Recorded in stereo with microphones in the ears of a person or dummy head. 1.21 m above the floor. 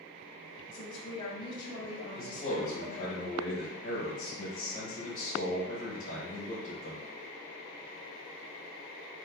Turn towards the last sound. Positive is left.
turn(degrees=45)  # may be behind; listen again after turning